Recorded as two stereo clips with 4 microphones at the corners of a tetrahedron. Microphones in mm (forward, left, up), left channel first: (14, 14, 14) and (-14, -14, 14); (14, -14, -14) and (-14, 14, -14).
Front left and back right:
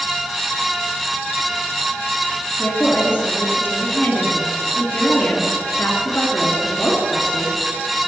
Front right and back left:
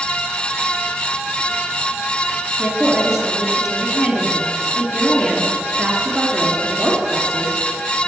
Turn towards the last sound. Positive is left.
turn(degrees=55)